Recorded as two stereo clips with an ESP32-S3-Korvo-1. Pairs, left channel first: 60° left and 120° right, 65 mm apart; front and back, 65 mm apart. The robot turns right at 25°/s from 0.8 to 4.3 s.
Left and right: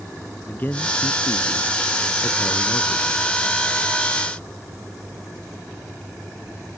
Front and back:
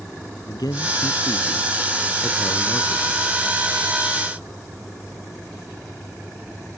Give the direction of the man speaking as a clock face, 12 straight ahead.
12 o'clock.